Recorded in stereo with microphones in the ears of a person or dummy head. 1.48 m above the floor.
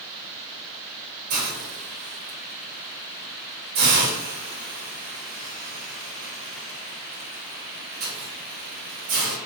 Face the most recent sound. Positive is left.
turn(degrees=-65)  # may be behind; listen again after turning